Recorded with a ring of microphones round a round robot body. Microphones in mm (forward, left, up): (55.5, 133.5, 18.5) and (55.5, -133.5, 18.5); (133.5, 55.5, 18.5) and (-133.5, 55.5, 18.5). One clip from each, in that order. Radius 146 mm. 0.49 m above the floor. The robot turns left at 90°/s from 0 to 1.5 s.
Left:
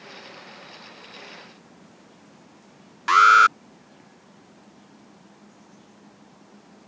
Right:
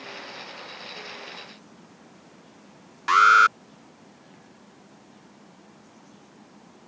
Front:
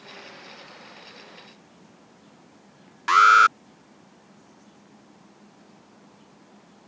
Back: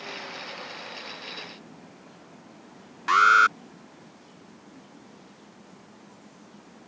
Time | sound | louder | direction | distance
3.1 | an alarm | left 2 dB, front 3 dB | 25° left | ?